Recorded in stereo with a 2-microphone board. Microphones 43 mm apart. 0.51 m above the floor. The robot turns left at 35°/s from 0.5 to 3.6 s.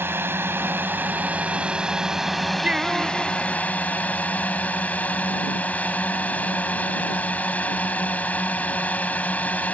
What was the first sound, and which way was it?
A drone, 110° right.